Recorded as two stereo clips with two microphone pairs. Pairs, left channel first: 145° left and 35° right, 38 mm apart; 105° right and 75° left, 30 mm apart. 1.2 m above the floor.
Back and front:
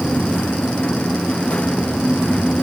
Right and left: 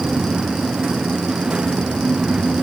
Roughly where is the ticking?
I don't hear ticking.